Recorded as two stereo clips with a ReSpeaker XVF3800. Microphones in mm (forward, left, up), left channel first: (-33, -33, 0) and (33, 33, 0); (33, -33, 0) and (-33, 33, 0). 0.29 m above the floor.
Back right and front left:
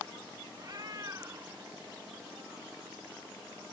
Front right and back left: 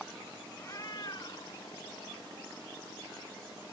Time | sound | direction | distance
0.6 | a cat meowing | 5° left | ?